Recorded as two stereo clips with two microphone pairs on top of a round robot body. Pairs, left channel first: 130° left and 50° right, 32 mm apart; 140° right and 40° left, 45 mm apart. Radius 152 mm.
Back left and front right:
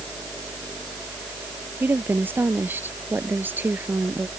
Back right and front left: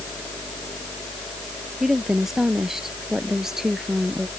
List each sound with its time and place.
1.8 s a woman speaking: 40° right